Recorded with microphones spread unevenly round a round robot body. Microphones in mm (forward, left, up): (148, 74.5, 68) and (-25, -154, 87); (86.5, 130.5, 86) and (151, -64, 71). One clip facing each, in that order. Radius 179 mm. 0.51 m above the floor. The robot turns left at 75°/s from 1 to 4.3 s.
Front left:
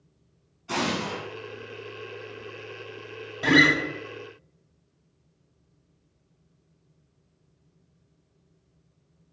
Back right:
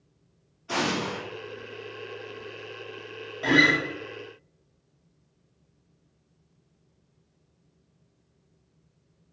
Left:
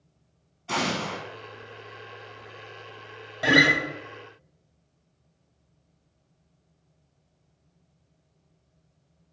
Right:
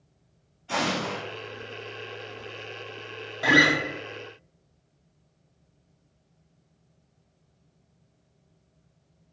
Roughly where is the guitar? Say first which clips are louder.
Front left 2 dB, even; ahead left.